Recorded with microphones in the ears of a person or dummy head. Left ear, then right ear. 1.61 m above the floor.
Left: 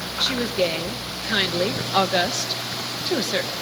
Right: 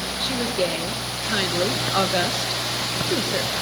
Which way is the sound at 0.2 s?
20° left (ahead or behind).